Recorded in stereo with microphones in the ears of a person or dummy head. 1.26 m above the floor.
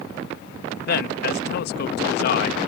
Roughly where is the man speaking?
Left.